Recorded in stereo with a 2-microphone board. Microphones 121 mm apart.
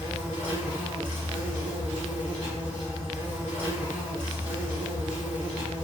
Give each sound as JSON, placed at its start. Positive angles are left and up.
{"t": 0.0, "sound": "an insect", "side_deg": -45, "distance_m": 1.2}